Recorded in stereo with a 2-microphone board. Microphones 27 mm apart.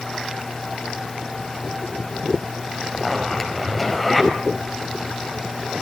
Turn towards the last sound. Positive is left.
turn(degrees=15)  # may be behind; listen again after turning